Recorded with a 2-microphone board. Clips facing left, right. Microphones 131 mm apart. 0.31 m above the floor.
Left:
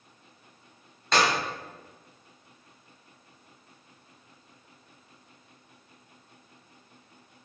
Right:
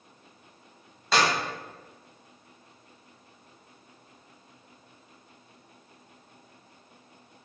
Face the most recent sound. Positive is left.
turn(degrees=-5)  # may be behind; listen again after turning